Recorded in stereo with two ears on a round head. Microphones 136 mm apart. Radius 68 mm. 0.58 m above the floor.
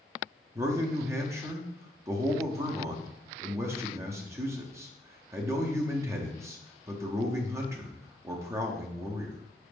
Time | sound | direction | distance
0.6 | a man speaking | 20° right (ahead or behind) | 0.5 m